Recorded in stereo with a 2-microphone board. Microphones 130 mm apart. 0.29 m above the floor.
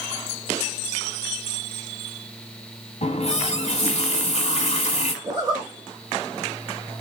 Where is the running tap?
60° left (ahead or behind), 1.1 m.